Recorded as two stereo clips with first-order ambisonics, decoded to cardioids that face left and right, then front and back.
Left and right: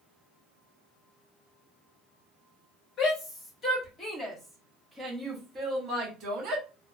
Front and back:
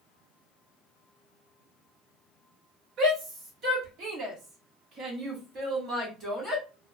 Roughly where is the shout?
Behind left.